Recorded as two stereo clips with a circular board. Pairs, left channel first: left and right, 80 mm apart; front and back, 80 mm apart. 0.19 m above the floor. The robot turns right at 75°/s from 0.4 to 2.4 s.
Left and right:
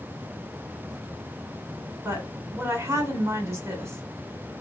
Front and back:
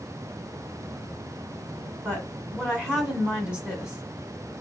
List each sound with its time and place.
2.0 s a woman speaking: 135° right, 1.4 m; by 4.0 s 110° right, 1.4 m